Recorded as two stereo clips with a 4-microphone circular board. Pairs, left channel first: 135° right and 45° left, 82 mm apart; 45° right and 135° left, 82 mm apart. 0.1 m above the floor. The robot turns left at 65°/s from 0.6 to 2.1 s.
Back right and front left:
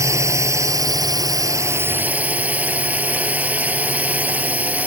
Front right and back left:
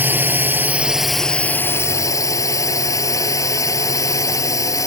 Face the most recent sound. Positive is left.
turn(degrees=-20)